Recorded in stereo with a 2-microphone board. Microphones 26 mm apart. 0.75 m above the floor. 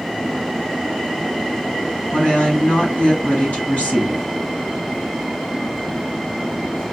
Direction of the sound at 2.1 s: 65° left (ahead or behind).